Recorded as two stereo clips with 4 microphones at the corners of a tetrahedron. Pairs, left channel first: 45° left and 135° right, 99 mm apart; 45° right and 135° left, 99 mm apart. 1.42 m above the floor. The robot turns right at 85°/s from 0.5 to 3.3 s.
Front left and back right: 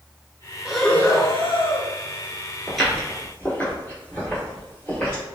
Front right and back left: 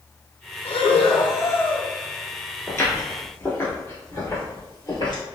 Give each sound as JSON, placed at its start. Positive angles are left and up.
{"t": 0.7, "sound": "breathing", "azimuth_deg": -55, "distance_m": 0.6}
{"t": 2.7, "sound": "footsteps", "azimuth_deg": -40, "distance_m": 1.5}